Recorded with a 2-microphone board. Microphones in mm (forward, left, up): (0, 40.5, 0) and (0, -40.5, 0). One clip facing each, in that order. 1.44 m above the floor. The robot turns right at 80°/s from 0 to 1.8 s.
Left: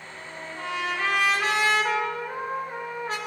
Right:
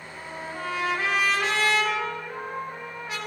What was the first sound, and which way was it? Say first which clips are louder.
A trumpet: right 3 dB; 95° right.